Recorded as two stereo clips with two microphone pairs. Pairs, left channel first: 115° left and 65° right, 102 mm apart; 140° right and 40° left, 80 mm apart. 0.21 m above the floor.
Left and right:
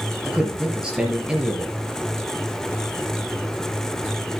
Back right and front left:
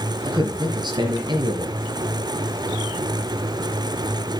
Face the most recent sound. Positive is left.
turn(degrees=20)